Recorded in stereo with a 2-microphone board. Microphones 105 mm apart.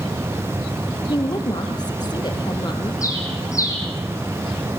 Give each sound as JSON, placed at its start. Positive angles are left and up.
{"t": 1.1, "sound": "a woman speaking", "side_deg": 45, "distance_m": 4.0}
{"t": 3.0, "sound": "a bird", "side_deg": 30, "distance_m": 5.0}